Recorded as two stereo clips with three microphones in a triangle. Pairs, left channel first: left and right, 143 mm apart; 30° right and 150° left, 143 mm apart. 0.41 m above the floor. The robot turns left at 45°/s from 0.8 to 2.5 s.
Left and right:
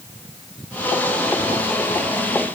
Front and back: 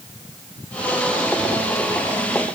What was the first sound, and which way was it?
Only background noise.